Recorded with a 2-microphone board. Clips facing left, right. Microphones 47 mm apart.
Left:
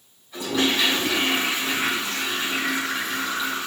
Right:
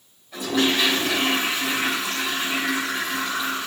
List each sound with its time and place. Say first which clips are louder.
0.3 s a toilet flushing: right 1 dB; 70° right (ahead or behind), 5 m